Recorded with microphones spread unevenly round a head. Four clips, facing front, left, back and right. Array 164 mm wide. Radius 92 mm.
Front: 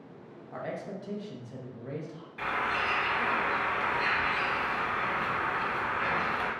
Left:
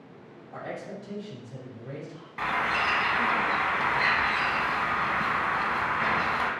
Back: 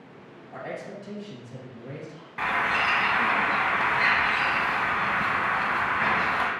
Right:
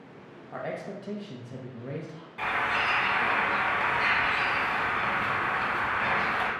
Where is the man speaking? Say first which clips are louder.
Right 2 dB, back 1 dB; 95° right, 1.0 m.